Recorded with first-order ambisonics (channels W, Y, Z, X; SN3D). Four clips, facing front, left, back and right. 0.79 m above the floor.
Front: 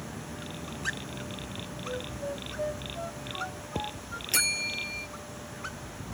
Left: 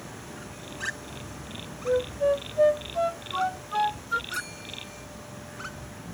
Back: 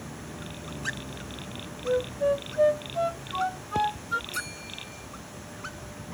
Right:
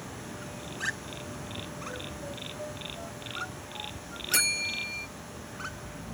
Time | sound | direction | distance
1.9 | a flute | 125° left | ?
4.3 | a bell | 45° right | ?